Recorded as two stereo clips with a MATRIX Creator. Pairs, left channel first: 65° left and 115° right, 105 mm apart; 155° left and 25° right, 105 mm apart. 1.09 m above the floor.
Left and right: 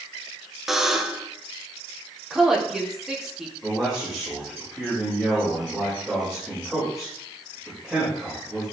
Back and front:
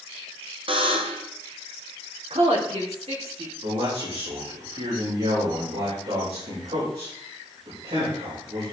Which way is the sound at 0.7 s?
25° right.